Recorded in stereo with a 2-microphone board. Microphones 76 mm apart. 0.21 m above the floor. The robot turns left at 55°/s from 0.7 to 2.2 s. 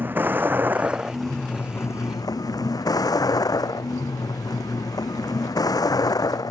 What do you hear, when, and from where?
0.0 s a vehicle: 155° right; by 6.5 s 125° left